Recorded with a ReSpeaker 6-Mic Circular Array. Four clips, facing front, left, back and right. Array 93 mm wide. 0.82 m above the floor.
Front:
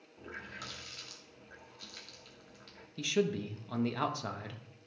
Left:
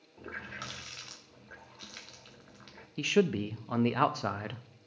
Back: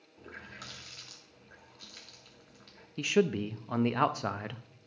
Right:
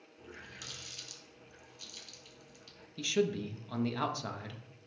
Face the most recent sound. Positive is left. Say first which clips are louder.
# left 4 dB, back 4 dB
turn(degrees=130)